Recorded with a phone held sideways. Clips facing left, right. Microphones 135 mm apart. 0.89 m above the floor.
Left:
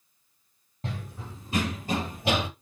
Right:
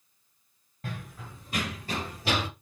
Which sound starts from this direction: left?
Running footsteps, at 0.8 s.